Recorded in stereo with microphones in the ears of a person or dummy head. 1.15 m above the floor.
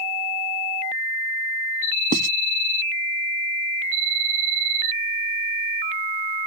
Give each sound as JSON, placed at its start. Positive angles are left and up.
{"t": 2.1, "sound": "writing", "side_deg": -45}